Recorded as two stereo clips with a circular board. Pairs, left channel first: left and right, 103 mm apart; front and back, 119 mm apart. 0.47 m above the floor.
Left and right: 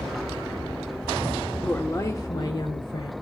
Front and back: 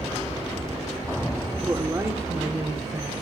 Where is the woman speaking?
145° left, 0.8 m; by 3.1 s 115° left, 1.7 m.